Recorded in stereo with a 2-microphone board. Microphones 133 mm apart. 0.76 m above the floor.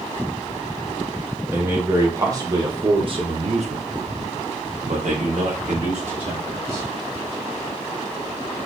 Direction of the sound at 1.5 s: 15° right (ahead or behind).